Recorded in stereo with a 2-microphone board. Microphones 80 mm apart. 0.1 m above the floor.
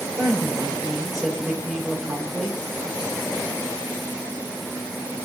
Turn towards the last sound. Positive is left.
turn(degrees=-5)  # may be behind; listen again after turning